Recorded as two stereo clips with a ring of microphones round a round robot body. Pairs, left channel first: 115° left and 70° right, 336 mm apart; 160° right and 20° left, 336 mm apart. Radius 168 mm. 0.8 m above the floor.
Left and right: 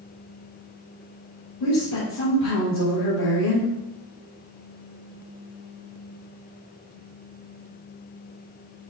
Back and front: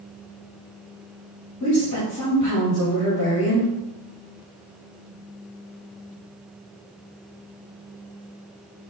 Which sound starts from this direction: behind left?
A woman speaking, at 1.6 s.